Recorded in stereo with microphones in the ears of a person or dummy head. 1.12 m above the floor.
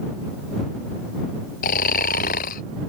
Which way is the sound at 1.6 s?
50° left (ahead or behind).